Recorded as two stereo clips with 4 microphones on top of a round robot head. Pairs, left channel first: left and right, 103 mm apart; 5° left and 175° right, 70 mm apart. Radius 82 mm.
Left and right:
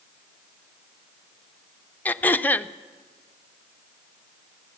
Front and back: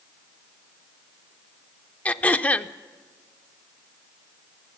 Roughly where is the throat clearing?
Ahead left.